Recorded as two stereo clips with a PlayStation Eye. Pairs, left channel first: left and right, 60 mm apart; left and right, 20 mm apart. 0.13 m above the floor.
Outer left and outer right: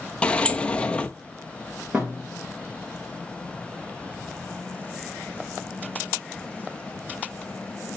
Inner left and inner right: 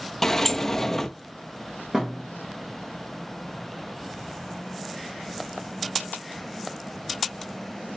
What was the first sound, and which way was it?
A sliding door, 20° left (ahead or behind).